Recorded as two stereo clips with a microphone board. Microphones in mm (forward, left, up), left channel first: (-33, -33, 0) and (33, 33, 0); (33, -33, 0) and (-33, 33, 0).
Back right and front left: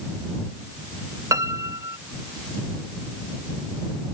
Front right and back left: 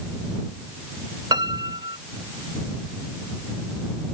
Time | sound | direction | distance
1.3 | a piano | 95° left | ?